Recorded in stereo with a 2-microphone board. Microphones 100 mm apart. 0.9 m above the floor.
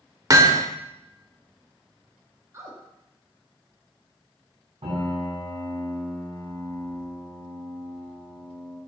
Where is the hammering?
35° right (ahead or behind), 0.8 m.